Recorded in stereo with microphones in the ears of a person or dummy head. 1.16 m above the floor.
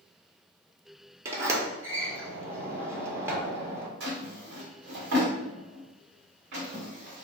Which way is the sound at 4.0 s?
65° right (ahead or behind).